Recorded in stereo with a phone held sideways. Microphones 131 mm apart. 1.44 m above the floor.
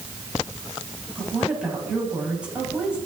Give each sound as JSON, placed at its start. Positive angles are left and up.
{"t": 1.1, "sound": "a woman speaking", "side_deg": -10, "distance_m": 8.5}